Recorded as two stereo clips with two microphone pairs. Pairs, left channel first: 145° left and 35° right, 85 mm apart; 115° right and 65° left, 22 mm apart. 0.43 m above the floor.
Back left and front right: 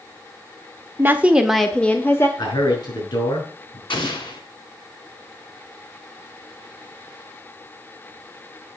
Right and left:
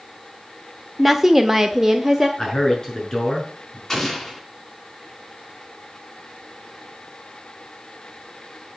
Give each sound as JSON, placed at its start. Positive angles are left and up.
{"t": 1.0, "sound": "a woman speaking", "azimuth_deg": -5, "distance_m": 1.1}
{"t": 2.4, "sound": "a man speaking", "azimuth_deg": 175, "distance_m": 6.0}
{"t": 3.9, "sound": "an explosion", "azimuth_deg": 160, "distance_m": 2.5}